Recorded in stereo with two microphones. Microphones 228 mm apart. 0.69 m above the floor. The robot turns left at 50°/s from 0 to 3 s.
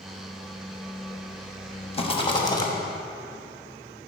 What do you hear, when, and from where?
1.9 s a rattle: 25° left (ahead or behind), 1.0 m; by 2.7 s 15° left (ahead or behind), 1.0 m